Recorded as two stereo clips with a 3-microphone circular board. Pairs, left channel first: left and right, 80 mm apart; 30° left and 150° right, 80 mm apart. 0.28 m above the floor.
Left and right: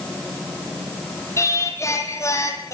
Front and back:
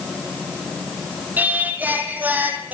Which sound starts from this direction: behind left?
Singing, at 1.4 s.